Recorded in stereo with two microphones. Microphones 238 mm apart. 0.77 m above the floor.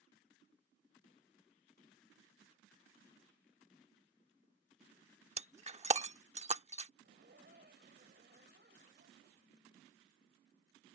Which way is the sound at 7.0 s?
45° right (ahead or behind).